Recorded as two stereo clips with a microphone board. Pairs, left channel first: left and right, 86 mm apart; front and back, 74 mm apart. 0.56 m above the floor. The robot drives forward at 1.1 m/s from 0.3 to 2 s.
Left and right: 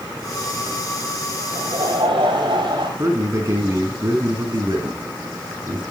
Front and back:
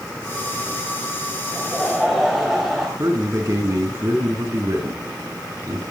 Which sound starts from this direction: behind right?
A man speaking, at 3.0 s.